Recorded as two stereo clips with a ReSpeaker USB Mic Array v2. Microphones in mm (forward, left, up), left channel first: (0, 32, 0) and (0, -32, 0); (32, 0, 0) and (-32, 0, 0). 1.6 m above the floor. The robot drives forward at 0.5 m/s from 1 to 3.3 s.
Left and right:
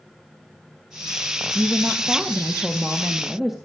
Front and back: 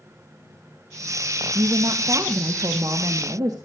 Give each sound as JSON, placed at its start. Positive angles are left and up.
{"t": 1.6, "sound": "a woman speaking", "azimuth_deg": -175, "distance_m": 0.8}